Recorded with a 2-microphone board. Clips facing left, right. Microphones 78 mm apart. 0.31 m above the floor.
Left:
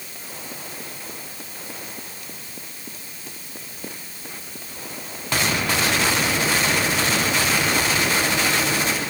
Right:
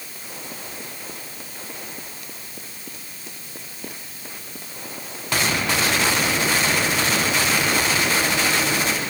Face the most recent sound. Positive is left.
No sound to turn to.